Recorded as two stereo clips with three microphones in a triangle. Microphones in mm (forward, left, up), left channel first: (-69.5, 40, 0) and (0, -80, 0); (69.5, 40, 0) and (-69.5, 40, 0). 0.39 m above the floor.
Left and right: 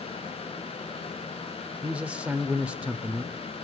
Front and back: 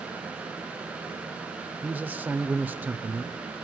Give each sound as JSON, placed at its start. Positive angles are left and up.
{"t": 1.8, "sound": "a man speaking", "azimuth_deg": -125, "distance_m": 1.0}